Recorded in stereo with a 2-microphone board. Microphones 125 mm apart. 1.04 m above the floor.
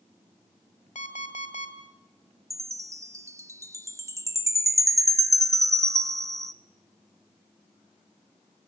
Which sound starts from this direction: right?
A chime, at 2.5 s.